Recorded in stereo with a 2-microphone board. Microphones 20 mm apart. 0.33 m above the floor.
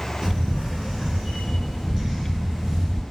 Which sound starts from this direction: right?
A camera shutter, at 0.2 s.